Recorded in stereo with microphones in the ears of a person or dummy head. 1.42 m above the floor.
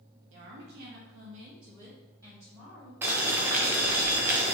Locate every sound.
0.3 s a woman speaking: 65° right (ahead or behind), 0.8 m; by 2.9 s 5° right (ahead or behind), 1.4 m
3.0 s boiling: 10° right (ahead or behind), 0.6 m